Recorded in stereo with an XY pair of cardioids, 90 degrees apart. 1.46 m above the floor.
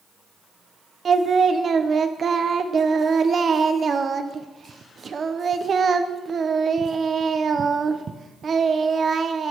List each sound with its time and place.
1.1 s singing: 50° right, 0.9 m